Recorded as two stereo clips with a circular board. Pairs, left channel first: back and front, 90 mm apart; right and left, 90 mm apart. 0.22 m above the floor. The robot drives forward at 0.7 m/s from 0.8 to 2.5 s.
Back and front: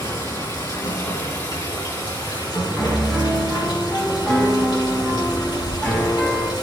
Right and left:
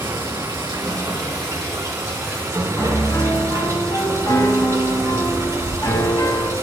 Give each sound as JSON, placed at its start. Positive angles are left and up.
{"t": 0.0, "sound": "running water", "azimuth_deg": 135, "distance_m": 4.5}
{"t": 2.8, "sound": "a piano", "azimuth_deg": -115, "distance_m": 2.0}